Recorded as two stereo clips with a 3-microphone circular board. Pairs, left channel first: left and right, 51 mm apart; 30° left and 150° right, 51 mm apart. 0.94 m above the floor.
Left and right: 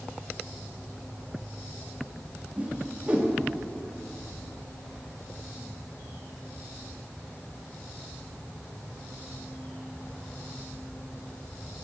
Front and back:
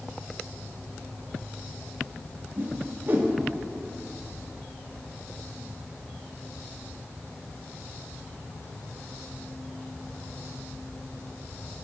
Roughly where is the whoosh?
Behind right.